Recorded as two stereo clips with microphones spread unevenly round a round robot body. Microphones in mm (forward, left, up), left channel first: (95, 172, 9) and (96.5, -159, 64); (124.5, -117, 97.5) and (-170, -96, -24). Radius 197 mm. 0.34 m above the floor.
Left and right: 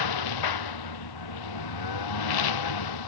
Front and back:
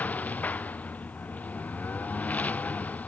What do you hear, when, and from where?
0.0 s a lawn mower: 80° left